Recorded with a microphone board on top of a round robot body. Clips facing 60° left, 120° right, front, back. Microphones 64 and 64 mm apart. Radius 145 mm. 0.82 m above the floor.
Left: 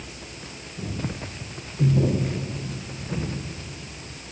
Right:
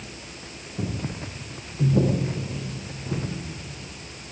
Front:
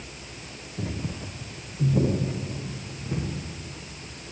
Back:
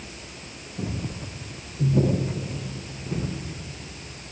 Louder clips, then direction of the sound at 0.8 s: Right 1 dB, back 1 dB; 65° right.